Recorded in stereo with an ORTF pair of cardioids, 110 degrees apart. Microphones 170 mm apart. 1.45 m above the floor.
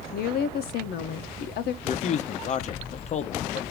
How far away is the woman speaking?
About 1.0 m.